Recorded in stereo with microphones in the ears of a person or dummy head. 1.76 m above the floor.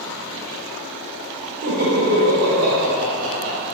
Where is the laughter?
35° right (ahead or behind), 1.1 m; by 3.6 s 80° right, 2.0 m.